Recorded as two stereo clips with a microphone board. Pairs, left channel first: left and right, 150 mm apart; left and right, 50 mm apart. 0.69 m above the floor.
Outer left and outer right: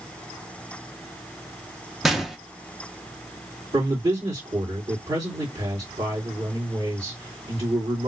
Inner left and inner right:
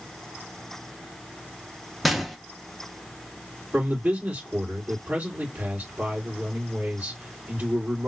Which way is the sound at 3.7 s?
35° right (ahead or behind).